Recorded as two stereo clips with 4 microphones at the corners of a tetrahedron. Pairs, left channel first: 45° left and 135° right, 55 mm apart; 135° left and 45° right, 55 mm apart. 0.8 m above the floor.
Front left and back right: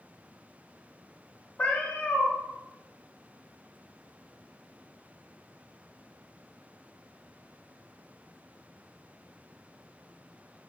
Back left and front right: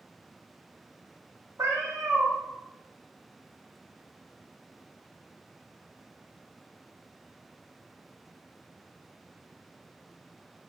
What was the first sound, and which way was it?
A cat meowing, 20° right.